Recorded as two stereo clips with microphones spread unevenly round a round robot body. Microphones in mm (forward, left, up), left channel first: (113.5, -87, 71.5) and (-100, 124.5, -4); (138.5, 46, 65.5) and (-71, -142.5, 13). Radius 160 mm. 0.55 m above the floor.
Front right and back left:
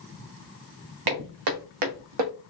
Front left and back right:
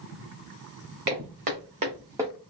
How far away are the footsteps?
About 1.8 m.